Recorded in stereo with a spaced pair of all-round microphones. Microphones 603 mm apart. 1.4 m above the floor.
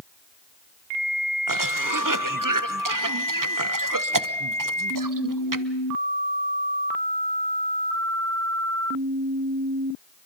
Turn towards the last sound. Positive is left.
turn(degrees=-35)  # may be behind; listen again after turning